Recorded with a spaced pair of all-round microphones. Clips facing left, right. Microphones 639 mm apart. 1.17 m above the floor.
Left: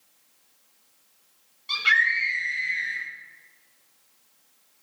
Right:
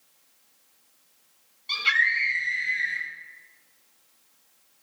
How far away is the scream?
About 8 m.